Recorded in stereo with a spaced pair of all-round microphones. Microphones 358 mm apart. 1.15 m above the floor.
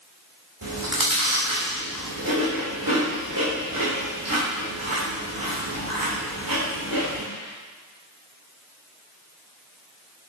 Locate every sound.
0.6 s chewing: 60° right (ahead or behind), 1.9 m